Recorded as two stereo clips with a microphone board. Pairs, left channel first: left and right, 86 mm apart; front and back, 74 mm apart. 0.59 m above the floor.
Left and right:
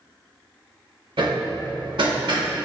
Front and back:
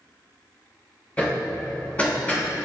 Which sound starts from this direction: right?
Hammering, at 1.2 s.